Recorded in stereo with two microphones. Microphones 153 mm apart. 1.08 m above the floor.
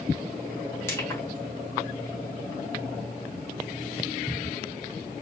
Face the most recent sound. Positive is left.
turn(degrees=15)  # may be behind; listen again after turning